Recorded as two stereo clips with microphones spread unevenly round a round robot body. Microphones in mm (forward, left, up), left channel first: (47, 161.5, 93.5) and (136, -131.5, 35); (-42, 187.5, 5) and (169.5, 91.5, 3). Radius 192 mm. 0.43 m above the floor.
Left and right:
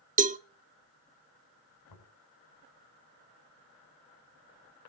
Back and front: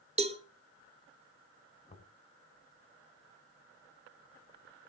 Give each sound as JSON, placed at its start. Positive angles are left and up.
{"t": 0.2, "sound": "a cowbell", "azimuth_deg": -65, "distance_m": 0.9}
{"t": 1.9, "sound": "knocking", "azimuth_deg": 90, "distance_m": 4.5}